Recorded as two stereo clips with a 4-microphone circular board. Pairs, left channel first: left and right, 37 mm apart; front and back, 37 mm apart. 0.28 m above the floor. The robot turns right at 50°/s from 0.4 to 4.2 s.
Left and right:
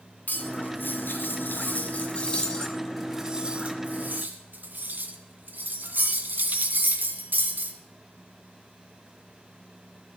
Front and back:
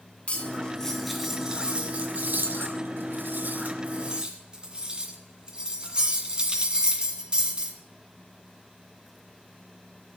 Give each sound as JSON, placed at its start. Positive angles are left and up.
{"t": 0.3, "sound": "cutlery clinking", "azimuth_deg": 55, "distance_m": 1.9}